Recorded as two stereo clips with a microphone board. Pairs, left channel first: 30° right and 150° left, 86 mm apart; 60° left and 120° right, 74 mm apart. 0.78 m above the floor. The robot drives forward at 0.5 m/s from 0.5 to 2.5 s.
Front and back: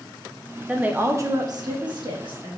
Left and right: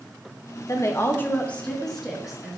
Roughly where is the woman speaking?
Left.